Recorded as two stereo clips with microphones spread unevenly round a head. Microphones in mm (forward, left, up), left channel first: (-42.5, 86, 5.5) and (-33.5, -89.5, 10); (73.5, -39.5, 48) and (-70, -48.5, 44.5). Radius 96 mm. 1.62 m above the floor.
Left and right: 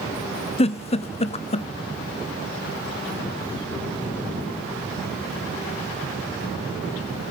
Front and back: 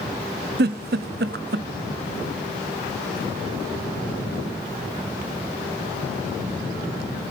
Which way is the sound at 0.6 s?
150° left.